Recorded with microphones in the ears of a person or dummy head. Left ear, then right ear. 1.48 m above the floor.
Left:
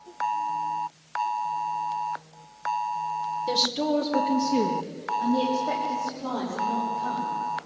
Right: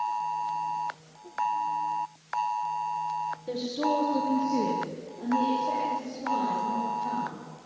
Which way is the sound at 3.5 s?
45° left (ahead or behind).